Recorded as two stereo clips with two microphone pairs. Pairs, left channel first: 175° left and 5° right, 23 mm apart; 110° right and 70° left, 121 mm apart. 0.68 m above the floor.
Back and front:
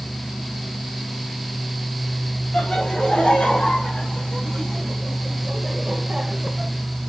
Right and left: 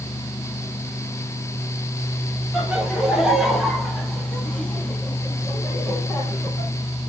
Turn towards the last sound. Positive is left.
turn(degrees=-50)